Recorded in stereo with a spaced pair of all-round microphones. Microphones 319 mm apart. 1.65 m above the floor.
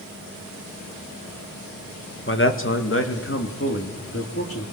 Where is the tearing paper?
I don't hear tearing paper.